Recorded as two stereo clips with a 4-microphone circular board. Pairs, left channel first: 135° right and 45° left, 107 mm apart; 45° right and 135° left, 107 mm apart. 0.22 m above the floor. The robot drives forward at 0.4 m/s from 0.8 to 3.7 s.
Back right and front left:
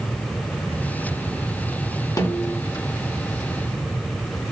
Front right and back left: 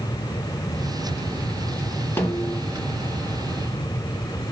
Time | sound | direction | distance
2.2 | a snare drum | 100° right | 1.0 m